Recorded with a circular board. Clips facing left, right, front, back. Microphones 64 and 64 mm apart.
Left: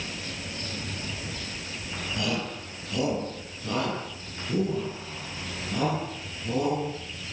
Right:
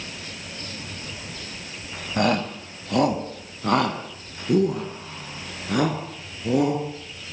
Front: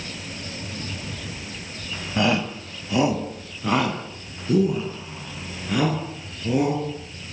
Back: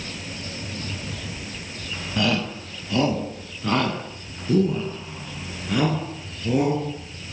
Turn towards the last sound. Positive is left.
turn(degrees=-90)